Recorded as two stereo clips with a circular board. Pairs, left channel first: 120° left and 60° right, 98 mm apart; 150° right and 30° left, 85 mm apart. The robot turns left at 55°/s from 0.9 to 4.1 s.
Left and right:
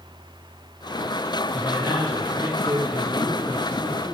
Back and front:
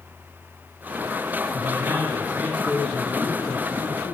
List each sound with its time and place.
1.5 s a man speaking: 10° left, 1.7 m; by 4.2 s 130° right, 1.7 m